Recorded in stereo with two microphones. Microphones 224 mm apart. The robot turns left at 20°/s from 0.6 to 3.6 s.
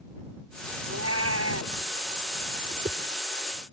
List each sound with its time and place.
0.9 s a cat meowing: 80° right
2.7 s a whoosh: 30° right (ahead or behind); by 3.0 s 35° right (ahead or behind)